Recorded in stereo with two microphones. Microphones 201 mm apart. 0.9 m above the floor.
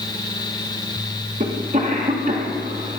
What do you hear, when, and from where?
1.4 s a cough: 35° right (ahead or behind), 1.1 m